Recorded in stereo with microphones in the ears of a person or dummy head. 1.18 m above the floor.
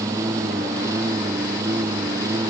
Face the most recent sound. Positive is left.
turn(degrees=-20)  # may be behind; listen again after turning